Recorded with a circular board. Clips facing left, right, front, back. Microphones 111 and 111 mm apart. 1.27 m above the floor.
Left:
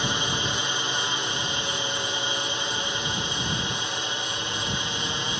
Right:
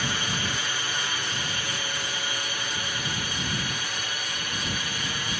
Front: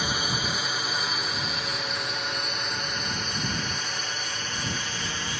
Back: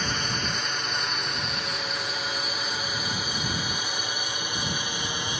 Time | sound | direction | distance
0.0 | a drone | 70° left | ?